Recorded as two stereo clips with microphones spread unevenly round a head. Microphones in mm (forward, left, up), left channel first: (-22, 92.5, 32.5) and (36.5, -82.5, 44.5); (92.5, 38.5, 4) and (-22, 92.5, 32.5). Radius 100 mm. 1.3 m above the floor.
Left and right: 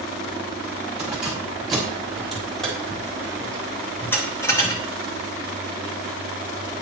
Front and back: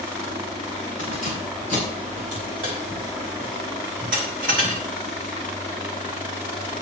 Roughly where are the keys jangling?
Behind right.